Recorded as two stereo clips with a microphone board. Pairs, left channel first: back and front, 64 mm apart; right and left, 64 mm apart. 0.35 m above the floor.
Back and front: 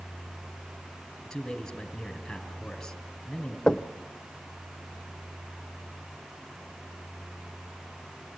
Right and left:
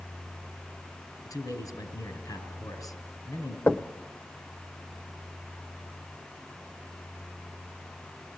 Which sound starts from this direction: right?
A man speaking, at 1.2 s.